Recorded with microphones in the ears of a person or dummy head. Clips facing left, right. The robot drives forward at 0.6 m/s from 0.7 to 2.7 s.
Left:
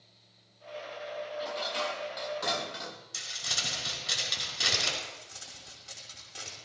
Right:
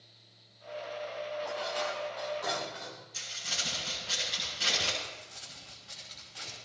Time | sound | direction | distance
1.4 | dishes clattering | 40° left (ahead or behind) | 1.9 m
3.1 | crumpling | 75° left (ahead or behind) | 7 m
5.0 | crumpling | 60° left (ahead or behind) | 5.5 m